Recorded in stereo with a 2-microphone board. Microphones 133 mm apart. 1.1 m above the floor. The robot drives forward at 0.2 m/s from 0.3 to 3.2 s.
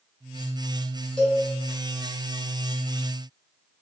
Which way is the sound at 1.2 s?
10° left (ahead or behind).